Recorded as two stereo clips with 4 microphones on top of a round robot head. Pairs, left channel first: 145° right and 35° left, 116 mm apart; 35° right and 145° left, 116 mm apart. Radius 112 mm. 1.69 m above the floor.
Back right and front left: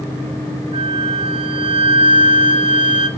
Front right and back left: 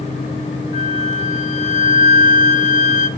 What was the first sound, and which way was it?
A flute, 10° right.